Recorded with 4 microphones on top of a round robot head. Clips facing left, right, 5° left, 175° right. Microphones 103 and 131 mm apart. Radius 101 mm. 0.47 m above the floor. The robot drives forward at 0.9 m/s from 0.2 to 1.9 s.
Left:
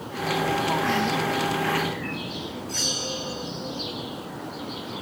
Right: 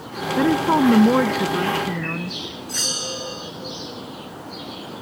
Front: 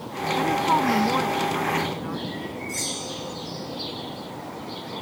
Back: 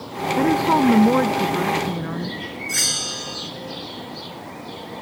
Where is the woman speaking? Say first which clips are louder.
Right 9 dB, back 5 dB; 115° right; by 2.4 s 125° right.